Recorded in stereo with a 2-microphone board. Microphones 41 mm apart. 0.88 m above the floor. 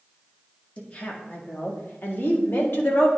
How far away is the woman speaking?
About 1.8 m.